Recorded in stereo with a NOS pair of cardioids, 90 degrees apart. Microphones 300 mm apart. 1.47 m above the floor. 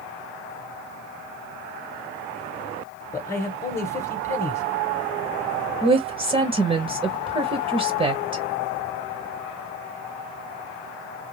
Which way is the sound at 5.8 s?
15° right.